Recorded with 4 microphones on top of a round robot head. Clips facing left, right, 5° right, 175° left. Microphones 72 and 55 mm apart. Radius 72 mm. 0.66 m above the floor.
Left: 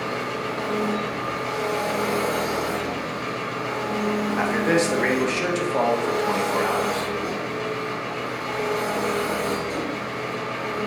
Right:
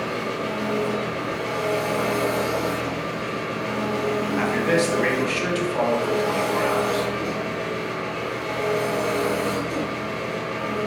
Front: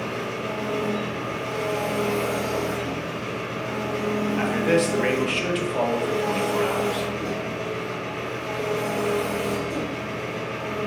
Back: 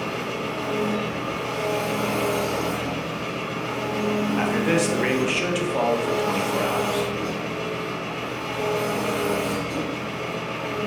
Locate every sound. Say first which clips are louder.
0.0 s an engine running: right 1 dB, back 1 dB; 150° left, 1.6 m
4.4 s a man speaking: even, front 2 dB; 100° left, 0.6 m